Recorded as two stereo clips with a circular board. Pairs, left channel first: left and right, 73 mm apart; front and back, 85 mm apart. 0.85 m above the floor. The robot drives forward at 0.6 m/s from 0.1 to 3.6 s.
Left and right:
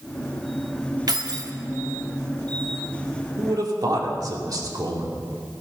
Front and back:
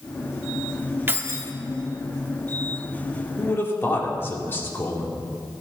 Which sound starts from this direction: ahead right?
A man speaking, at 3.4 s.